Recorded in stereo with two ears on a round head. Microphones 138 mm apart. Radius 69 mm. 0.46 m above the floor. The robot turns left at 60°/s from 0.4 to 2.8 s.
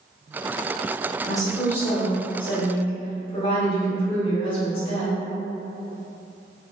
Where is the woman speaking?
175° right, 1.0 m; by 5.1 s 95° left, 1.0 m.